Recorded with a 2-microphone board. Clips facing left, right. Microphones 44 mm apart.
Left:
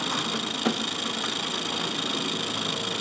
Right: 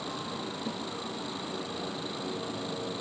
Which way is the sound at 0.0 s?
80° left.